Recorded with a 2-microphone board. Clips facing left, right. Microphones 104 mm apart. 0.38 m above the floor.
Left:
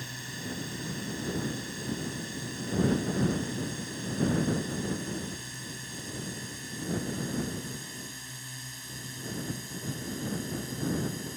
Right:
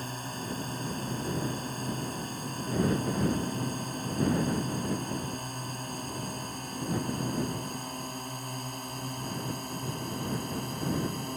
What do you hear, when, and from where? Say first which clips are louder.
0.0 s a drone: right 4 dB; 45° right (ahead or behind); by 11.4 s 60° right (ahead or behind)